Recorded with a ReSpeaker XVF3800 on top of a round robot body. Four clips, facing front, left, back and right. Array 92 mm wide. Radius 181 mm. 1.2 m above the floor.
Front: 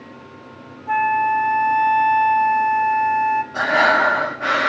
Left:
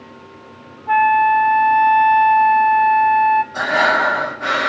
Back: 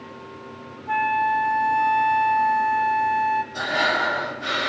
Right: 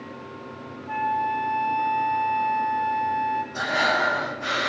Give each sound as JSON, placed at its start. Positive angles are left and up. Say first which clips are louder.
{"t": 0.9, "sound": "a flute", "louder": "left 12 dB, front 3 dB", "azimuth_deg": 65, "distance_m": 0.6}
{"t": 3.5, "sound": "breathing", "louder": "left 7 dB, front 7 dB", "azimuth_deg": 35, "distance_m": 1.5}